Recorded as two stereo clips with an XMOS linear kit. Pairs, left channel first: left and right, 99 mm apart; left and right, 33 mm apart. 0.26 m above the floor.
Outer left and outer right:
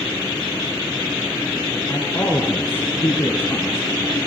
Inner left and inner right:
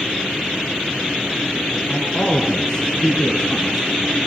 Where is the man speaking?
20° left (ahead or behind), 2.5 m.